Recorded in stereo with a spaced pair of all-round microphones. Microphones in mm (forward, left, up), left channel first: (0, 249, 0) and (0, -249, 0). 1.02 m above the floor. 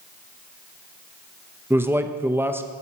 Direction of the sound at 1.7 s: 5° right (ahead or behind).